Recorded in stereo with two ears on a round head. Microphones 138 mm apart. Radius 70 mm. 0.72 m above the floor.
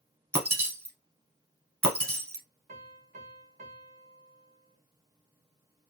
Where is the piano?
50° right (ahead or behind), 0.9 m.